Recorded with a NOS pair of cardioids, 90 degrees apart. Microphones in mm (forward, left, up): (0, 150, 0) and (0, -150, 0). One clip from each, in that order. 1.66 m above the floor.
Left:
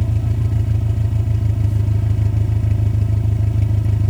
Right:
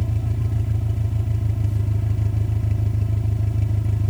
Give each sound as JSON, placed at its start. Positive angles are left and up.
{"t": 0.0, "sound": "an engine running", "azimuth_deg": 25}